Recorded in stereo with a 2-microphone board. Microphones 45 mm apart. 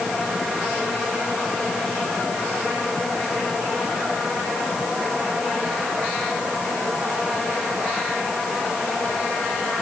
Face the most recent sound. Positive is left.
No sound to turn to.